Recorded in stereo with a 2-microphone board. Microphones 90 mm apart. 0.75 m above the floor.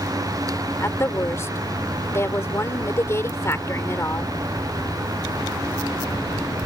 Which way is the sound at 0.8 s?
30° left (ahead or behind).